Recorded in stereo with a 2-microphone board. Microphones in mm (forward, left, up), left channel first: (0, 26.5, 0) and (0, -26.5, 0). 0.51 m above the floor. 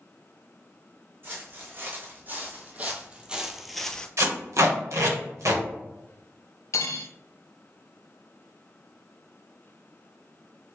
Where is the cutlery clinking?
65° left (ahead or behind), 0.6 m.